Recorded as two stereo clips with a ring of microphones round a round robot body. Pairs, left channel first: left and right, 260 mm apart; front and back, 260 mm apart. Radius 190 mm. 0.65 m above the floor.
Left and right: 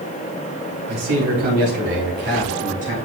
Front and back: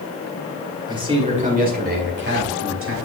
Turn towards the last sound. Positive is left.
turn(degrees=-155)